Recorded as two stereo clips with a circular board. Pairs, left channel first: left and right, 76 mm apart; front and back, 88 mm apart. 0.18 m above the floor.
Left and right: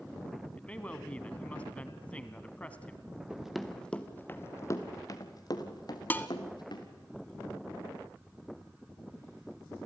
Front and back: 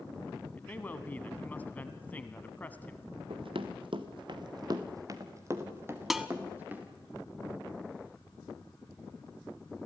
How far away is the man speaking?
About 1.2 m.